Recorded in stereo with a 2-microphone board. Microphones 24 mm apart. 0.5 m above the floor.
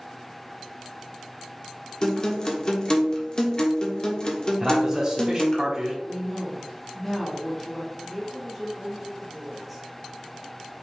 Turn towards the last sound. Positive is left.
turn(degrees=-5)  # may be behind; listen again after turning